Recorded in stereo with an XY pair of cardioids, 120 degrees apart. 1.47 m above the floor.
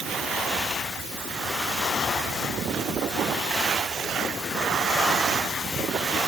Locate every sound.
Only background noise.